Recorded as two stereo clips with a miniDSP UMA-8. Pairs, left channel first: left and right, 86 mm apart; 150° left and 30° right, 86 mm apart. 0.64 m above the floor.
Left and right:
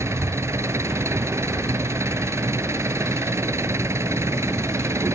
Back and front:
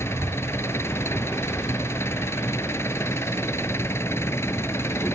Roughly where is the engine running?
Behind right.